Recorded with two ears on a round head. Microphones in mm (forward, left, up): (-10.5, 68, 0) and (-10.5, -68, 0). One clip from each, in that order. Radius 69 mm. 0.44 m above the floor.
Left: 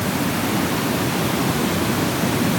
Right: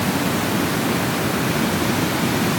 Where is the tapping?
I don't hear tapping.